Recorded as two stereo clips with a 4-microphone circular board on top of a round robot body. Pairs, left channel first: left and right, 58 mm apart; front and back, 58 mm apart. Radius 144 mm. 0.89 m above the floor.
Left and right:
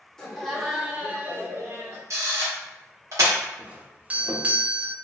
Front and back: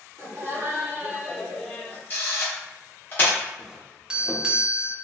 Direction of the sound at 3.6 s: 120° right.